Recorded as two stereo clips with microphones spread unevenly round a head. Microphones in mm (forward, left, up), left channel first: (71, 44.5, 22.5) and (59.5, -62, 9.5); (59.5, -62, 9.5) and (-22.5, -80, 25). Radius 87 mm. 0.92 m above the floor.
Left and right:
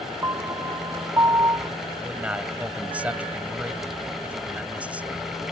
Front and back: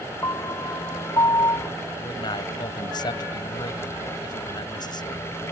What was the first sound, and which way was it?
A piano, 35° right.